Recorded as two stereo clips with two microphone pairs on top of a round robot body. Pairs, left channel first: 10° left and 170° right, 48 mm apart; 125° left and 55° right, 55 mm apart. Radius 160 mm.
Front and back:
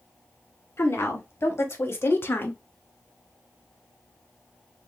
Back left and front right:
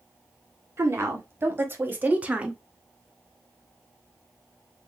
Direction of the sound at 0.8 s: 15° right.